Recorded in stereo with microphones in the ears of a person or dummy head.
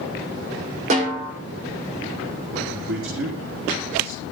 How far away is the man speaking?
About 3.5 m.